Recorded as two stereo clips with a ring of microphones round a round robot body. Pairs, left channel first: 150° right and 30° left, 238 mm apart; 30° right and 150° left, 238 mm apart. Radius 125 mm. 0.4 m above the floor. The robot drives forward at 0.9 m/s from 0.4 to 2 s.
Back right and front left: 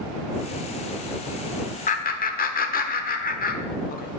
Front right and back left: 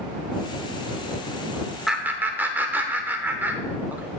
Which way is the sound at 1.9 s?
120° right.